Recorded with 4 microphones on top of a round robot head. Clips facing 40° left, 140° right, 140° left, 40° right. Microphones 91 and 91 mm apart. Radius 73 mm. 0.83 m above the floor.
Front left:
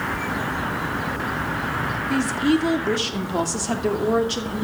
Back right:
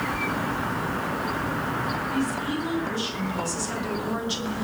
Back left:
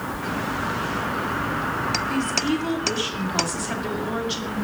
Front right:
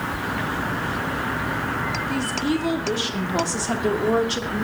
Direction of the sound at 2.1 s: 45° left.